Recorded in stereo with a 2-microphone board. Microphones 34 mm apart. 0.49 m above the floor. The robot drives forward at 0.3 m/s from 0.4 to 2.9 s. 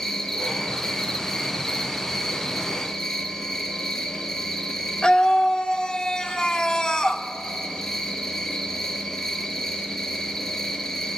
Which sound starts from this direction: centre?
An insect, at 0.0 s.